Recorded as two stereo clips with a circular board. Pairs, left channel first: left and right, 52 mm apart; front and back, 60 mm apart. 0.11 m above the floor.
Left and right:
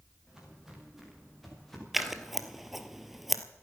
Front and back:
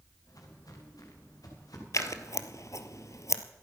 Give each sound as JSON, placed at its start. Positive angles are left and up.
{"t": 0.3, "sound": "footsteps", "azimuth_deg": -10, "distance_m": 6.0}
{"t": 1.9, "sound": "scissors", "azimuth_deg": -5, "distance_m": 1.0}